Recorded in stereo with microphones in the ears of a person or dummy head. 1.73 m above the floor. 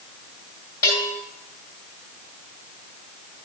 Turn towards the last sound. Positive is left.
turn(degrees=20)  # may be behind; listen again after turning